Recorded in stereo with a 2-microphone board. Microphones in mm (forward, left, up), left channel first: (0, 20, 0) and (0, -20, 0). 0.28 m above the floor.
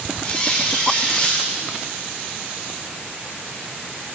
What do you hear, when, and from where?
0.2 s a squeak: 25° left (ahead or behind), 3.5 m